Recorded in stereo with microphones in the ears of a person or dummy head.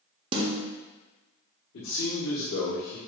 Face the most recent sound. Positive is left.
turn(degrees=75)  # may be behind; listen again after turning